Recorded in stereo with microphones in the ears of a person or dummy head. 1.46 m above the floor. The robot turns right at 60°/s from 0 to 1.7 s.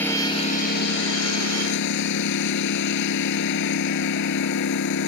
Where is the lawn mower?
10° left; by 5.1 s 115° left.